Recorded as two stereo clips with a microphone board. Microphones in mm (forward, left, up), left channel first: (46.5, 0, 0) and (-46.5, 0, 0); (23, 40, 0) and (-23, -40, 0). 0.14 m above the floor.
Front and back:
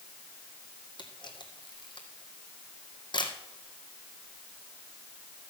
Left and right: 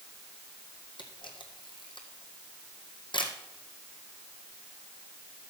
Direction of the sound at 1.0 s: 35° left.